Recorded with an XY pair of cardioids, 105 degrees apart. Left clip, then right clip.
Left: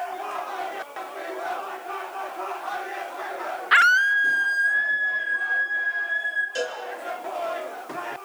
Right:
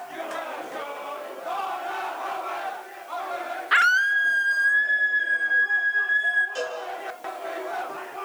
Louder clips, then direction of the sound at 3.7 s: Left 2 dB; 15° left.